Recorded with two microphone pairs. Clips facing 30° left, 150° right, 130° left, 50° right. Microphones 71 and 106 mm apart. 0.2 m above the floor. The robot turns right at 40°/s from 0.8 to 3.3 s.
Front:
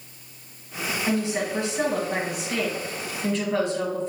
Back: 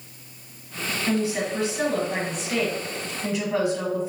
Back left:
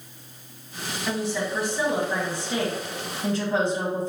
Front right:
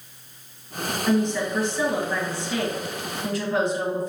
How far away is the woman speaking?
About 1.4 m.